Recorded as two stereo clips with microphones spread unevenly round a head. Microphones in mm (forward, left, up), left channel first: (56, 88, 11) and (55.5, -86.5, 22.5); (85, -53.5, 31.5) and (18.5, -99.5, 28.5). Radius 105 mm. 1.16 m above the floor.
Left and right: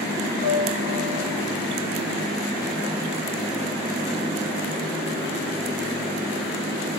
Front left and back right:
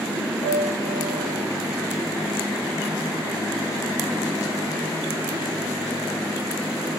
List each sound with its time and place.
0.4 s a piano: 150° left, 4.5 m